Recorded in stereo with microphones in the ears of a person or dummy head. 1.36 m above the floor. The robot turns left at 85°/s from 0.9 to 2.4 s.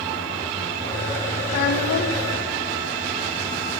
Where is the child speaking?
145° left, 0.9 m; by 2.3 s 70° left, 0.9 m.